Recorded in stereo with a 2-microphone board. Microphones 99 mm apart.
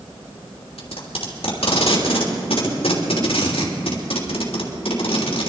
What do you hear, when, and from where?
0.8 s tape being pulled: 75° left (ahead or behind), 3 m